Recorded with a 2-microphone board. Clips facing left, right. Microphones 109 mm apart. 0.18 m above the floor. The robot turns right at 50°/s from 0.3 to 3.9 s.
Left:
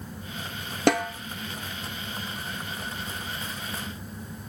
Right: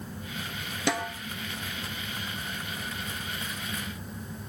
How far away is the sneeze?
No sneeze in this recording.